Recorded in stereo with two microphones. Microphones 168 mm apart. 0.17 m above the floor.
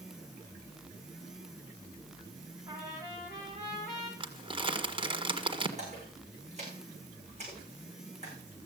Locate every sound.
2.7 s a trumpet: 20° right (ahead or behind), 5.5 m
4.2 s crumpling: 30° right (ahead or behind), 1.6 m
5.8 s a splash: 45° right (ahead or behind), 7.5 m